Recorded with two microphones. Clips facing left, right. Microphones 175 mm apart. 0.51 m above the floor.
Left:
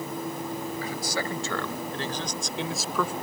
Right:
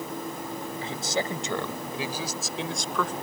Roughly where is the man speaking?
Right.